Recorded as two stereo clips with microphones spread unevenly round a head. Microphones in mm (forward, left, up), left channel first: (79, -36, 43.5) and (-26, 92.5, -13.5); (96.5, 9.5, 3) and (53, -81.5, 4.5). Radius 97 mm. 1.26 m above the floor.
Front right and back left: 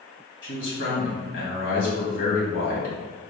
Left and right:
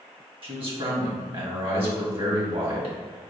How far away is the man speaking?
About 1.7 m.